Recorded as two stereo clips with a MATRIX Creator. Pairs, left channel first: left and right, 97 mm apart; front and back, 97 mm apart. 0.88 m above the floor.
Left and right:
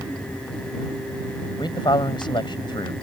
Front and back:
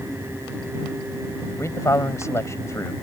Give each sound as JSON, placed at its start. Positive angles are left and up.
{"t": 1.6, "sound": "a man speaking", "azimuth_deg": 55}